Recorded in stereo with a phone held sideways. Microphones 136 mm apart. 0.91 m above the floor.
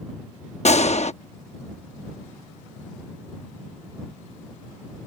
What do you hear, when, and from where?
0.7 s a gunshot: 55° left (ahead or behind)